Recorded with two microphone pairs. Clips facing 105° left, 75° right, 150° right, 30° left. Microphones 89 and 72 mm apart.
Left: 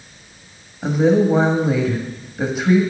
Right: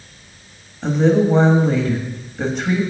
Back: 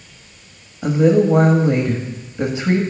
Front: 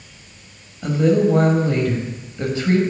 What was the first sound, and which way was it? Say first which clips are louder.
A woman speaking: even, back 2 dB; 175° left.